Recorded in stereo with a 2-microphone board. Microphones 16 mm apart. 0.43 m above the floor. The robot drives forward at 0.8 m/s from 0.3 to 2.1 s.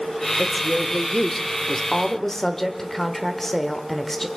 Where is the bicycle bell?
No bicycle bell in this recording.